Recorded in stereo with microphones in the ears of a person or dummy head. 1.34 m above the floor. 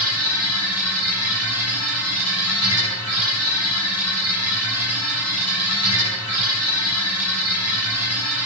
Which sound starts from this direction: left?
A machine running, at 0.0 s.